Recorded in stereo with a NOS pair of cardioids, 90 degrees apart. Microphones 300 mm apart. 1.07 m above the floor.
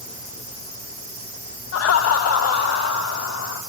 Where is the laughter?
55° left, 0.8 m; by 3.6 s 65° left, 2.5 m.